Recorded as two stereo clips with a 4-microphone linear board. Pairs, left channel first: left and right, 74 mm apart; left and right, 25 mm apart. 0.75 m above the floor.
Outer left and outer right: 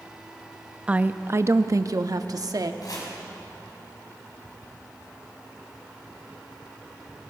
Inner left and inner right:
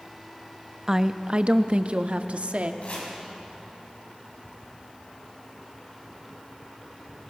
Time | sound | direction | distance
0.9 | a woman speaking | 15° right (ahead or behind) | 0.6 m
2.8 | chopping | 60° left (ahead or behind) | 5.5 m